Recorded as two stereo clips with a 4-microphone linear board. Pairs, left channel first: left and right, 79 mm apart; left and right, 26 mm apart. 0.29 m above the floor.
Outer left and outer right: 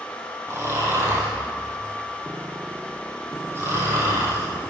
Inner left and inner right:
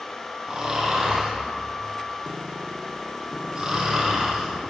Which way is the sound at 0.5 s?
30° right (ahead or behind).